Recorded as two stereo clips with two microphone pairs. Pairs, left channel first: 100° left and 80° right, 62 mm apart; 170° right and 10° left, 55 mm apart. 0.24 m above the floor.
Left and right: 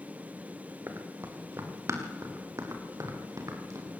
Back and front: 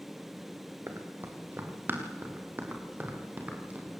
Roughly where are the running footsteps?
Ahead right.